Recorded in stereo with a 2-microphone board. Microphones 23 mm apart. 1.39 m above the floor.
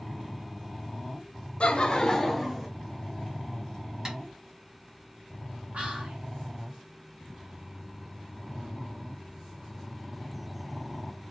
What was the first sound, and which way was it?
Laughter, 55° left (ahead or behind).